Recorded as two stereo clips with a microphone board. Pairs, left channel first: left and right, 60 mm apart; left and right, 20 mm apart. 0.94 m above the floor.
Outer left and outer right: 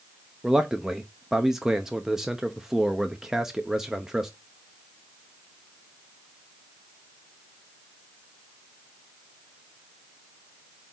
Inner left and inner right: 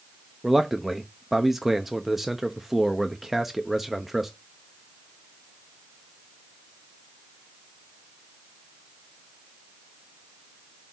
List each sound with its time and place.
0.4 s a man speaking: 10° right (ahead or behind), 0.8 m